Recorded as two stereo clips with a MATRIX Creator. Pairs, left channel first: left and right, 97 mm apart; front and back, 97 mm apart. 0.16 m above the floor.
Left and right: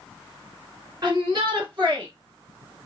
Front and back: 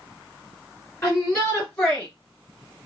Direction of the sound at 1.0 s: 55° right.